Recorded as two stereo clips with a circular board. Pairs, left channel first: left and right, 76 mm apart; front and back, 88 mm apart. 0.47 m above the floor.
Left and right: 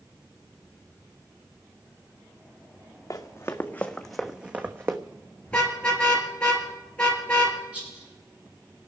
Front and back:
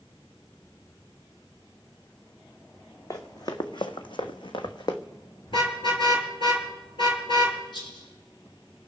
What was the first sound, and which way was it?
Running footsteps, 45° left.